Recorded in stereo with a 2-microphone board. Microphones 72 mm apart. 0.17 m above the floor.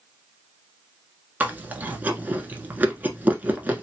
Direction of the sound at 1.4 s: 20° right (ahead or behind).